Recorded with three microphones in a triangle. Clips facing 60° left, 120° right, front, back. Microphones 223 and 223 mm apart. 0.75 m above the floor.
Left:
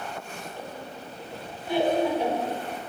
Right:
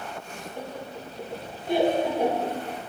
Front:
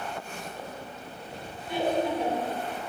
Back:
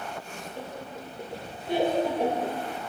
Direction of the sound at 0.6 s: 160° right.